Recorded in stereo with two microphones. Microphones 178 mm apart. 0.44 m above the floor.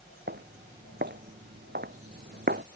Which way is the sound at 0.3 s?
80° right.